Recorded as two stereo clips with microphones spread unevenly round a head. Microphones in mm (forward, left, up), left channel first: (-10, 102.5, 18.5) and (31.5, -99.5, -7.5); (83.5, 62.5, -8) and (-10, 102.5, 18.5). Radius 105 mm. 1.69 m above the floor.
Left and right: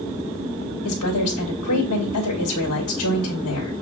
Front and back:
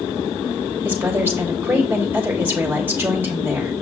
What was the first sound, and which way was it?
A woman speaking, 85° left.